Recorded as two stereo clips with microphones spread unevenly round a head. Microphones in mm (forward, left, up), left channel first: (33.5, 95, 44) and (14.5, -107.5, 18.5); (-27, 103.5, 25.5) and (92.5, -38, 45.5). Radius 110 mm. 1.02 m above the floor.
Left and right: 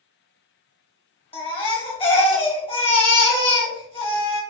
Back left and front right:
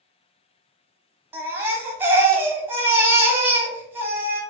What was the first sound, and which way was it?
A baby crying, 25° left.